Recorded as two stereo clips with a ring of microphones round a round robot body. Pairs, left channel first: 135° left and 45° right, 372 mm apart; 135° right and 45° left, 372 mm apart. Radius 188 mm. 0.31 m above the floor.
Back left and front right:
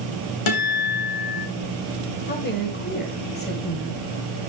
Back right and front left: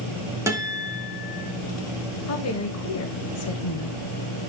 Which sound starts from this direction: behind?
A woman speaking, at 2.3 s.